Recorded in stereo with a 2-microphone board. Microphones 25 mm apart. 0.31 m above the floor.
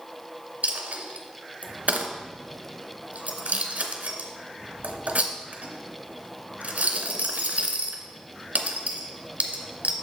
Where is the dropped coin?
85° right, 1.0 m.